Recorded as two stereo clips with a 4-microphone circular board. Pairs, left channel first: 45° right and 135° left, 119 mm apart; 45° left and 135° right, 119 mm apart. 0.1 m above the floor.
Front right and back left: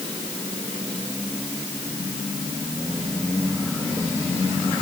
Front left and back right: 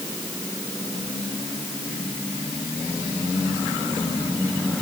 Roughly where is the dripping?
No dripping in this recording.